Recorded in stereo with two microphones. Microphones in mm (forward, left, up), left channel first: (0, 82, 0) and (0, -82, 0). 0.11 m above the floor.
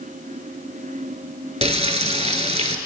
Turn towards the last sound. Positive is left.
turn(degrees=-40)  # may be behind; listen again after turning